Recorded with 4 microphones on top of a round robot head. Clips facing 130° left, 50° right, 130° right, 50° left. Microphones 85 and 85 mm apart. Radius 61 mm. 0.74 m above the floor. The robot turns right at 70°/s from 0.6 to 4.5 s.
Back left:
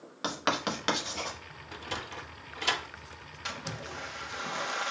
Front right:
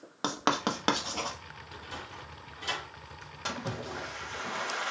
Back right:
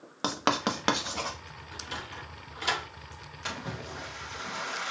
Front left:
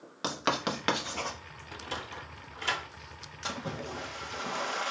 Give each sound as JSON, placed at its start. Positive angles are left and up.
{"t": 0.2, "sound": "writing", "azimuth_deg": -95, "distance_m": 1.1}
{"t": 1.7, "sound": "a sliding door", "azimuth_deg": 85, "distance_m": 0.6}
{"t": 3.5, "sound": "a splash", "azimuth_deg": -5, "distance_m": 1.1}